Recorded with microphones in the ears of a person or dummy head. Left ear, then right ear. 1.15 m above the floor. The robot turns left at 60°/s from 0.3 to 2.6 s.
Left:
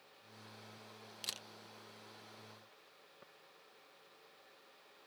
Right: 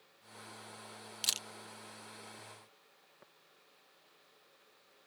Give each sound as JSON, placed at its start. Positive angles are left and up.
{"t": 1.2, "sound": "a camera shutter", "side_deg": -25}
{"t": 3.2, "sound": "tapping", "side_deg": -5}